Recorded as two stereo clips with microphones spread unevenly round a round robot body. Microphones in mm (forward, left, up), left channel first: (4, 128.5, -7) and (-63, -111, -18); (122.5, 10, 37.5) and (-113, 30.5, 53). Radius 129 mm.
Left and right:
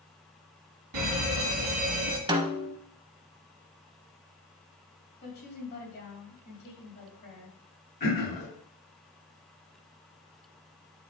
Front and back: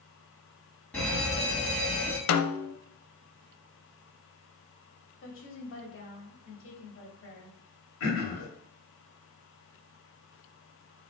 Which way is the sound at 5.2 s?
20° left.